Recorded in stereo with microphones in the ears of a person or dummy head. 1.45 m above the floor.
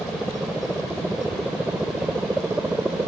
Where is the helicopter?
Centre (ahead or behind); by 3.1 s 5° right (ahead or behind).